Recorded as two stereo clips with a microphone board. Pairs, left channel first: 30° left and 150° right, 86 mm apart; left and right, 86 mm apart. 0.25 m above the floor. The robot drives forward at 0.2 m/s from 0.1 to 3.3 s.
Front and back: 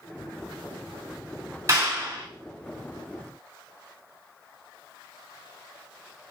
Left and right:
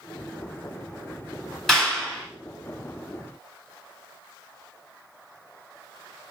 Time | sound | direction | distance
1.7 | a clap | 175° left | 1.1 m